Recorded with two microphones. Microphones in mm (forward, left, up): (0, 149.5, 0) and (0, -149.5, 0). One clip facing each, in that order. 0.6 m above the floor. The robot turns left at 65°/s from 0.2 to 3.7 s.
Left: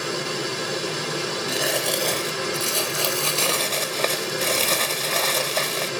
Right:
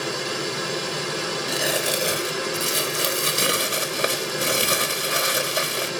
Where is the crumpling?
5° left (ahead or behind), 1.0 m; by 5.9 s 15° right (ahead or behind), 1.0 m.